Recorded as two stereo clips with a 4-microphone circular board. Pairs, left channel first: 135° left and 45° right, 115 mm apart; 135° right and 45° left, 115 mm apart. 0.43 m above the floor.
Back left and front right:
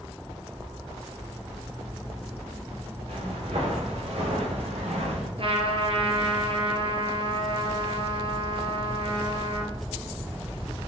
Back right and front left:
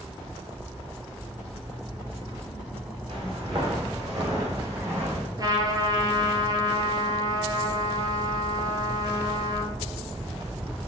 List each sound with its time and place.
3.1 s footsteps: 5° right, 4 m; by 5.3 s 20° right, 4.5 m
5.4 s a trumpet: 10° right, 1.6 m